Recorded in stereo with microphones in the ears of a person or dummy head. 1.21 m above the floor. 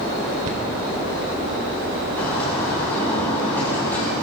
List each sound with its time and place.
0.5 s a cupboard door: 45° right (ahead or behind), 2.0 m
2.2 s a bird: 10° left (ahead or behind), 5 m